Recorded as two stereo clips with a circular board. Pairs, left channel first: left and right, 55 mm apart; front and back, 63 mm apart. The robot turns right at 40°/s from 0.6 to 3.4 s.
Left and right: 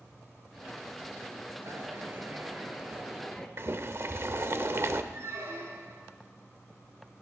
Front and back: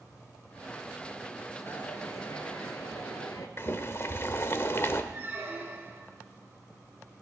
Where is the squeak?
120° right, 2 m.